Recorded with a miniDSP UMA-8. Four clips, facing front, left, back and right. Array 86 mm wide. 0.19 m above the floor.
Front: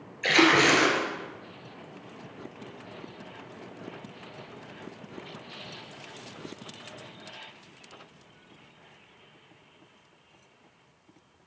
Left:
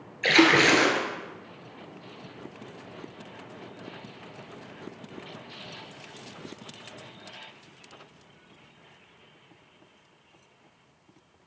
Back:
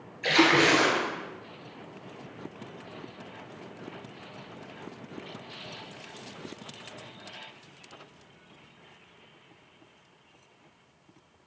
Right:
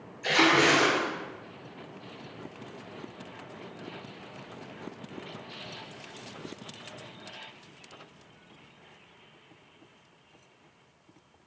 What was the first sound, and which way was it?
A splash, 75° left.